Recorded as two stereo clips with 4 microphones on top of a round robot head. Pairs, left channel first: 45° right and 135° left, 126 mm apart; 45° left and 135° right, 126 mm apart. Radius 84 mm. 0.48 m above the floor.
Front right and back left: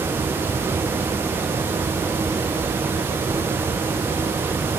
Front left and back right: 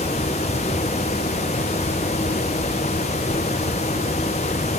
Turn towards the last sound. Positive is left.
No sound to turn to.